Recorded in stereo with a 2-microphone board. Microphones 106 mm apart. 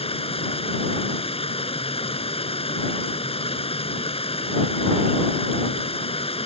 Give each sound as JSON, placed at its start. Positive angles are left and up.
{"t": 0.0, "sound": "running water", "side_deg": 65}